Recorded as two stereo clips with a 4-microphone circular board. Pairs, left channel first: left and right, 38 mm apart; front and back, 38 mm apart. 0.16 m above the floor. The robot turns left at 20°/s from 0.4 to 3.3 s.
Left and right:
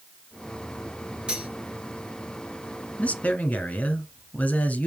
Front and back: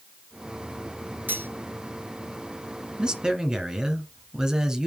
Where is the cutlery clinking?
155° right, 1.6 m; by 1.5 s 160° right, 1.6 m.